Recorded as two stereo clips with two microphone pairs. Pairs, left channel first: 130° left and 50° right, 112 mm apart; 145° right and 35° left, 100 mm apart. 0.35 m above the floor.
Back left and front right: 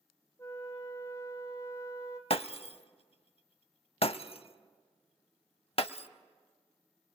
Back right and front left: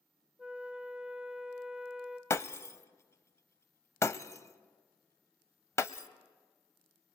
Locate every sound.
0.4 s a flute: 110° left, 1.1 m
2.3 s breaking glass: 160° left, 0.5 m